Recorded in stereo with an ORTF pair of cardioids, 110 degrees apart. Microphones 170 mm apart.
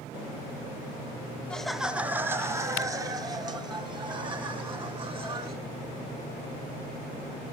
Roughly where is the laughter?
Ahead.